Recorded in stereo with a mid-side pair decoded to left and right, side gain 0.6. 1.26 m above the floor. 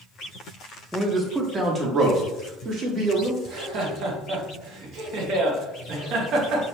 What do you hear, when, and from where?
0.9 s a man speaking: 15° right, 1.1 m; by 3.3 s 50° right, 2 m
3.4 s laughter: 60° right, 1.7 m